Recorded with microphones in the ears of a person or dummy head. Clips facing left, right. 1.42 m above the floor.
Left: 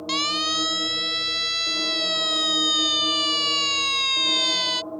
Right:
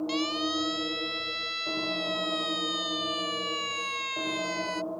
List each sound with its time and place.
0.1 s a siren: 75° left (ahead or behind); by 4.8 s 55° left (ahead or behind)